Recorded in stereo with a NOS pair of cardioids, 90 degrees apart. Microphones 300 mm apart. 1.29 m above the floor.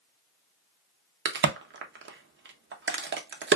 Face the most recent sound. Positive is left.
turn(degrees=-40)